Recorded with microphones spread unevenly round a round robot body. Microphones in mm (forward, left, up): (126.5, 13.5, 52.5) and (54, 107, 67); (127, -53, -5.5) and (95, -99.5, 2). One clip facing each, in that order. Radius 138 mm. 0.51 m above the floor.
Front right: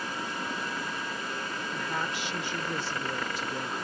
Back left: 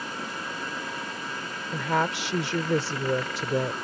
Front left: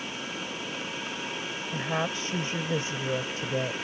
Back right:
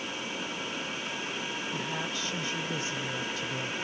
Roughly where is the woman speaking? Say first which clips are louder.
Back left 10 dB, front left 4 dB; behind left.